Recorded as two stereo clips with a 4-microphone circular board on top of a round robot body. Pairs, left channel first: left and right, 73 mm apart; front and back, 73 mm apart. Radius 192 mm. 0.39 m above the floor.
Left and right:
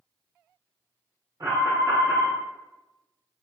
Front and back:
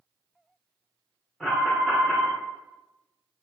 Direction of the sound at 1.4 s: 85° right.